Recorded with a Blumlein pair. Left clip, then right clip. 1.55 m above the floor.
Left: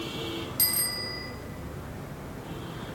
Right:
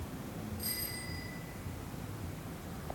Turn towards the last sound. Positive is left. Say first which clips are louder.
# left 11 dB
turn(degrees=45)